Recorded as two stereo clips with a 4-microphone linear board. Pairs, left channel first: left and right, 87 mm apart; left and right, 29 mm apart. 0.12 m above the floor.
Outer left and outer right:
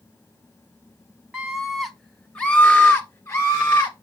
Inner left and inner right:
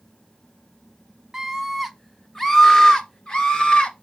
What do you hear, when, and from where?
1.3 s a scream: 10° right (ahead or behind), 1.3 m; by 3.9 s 45° left (ahead or behind), 1.7 m